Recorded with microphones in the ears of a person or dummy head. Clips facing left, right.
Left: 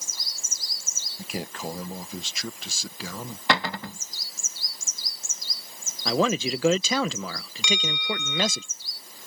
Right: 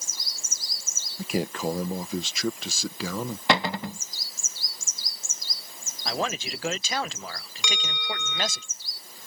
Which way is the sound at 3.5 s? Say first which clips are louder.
Right 1 dB; 15° right (ahead or behind).